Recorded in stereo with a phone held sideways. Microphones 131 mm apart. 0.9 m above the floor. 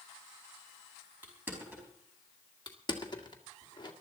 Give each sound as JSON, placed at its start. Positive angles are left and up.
{"t": 1.2, "sound": "crushing", "side_deg": -15, "distance_m": 4.5}
{"t": 2.7, "sound": "crushing", "side_deg": 35, "distance_m": 1.8}